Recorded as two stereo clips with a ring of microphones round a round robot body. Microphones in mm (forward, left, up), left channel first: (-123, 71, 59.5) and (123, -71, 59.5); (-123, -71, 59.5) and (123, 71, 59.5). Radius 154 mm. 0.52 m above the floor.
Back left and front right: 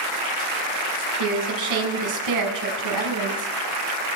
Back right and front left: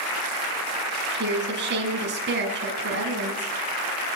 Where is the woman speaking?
25° right, 6 m.